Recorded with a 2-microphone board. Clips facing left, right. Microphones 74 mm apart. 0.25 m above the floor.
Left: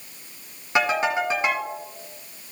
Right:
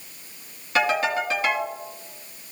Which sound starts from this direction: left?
A ringtone, at 0.8 s.